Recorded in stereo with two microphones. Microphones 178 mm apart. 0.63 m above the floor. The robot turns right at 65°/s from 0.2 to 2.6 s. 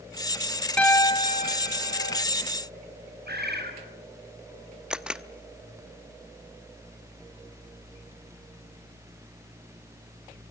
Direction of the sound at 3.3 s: 75° right (ahead or behind).